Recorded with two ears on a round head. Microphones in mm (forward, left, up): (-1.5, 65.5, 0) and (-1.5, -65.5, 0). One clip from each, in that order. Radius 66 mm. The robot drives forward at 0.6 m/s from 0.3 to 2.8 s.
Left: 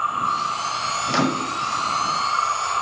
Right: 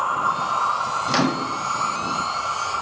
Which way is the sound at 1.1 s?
20° right (ahead or behind).